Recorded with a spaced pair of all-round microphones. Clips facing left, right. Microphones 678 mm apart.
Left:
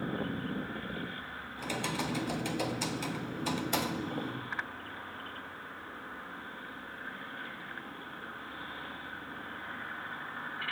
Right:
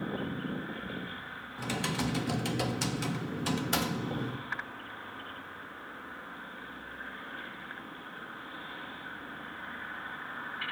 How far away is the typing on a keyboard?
About 0.7 m.